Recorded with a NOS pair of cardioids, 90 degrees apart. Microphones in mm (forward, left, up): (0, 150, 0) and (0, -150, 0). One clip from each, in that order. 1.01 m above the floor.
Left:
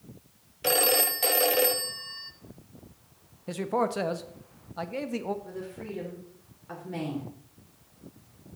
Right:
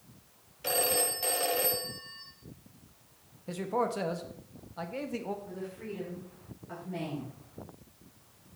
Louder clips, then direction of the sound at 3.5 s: Left 3 dB; 20° left.